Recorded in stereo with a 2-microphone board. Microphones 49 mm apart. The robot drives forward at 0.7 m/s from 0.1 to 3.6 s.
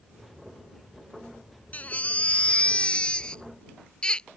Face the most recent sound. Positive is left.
turn(degrees=20)  # may be behind; listen again after turning